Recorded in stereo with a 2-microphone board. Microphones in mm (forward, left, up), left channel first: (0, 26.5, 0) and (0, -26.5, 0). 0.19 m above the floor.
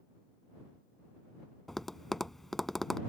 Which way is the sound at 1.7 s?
5° left (ahead or behind).